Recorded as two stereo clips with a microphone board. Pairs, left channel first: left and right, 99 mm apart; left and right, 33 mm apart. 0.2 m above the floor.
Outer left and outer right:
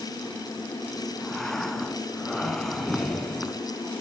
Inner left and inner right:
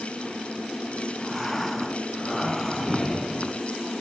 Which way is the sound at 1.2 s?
5° left (ahead or behind).